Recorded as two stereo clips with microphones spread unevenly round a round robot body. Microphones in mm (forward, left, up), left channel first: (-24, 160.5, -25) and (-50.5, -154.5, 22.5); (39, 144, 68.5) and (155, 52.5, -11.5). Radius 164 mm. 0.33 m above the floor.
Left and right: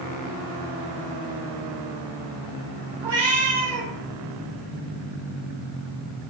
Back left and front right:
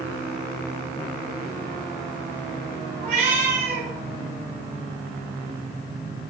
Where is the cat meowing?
45° right, 5 m.